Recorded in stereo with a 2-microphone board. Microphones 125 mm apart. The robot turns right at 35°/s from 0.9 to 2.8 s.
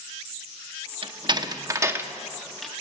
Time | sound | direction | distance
1.0 | a door slam | 45° right (ahead or behind) | 0.8 m